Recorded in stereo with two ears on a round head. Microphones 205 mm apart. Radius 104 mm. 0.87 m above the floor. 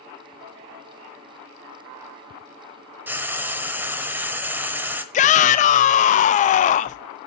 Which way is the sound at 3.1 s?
10° right (ahead or behind).